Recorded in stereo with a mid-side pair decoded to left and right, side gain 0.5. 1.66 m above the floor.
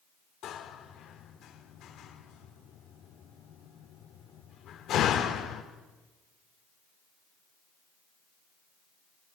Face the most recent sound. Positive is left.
turn(degrees=65)